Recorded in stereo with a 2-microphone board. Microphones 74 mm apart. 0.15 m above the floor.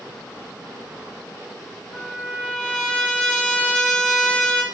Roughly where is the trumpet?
Centre.